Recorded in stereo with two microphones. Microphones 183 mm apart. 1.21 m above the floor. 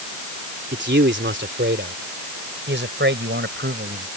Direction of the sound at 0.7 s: 65° right (ahead or behind).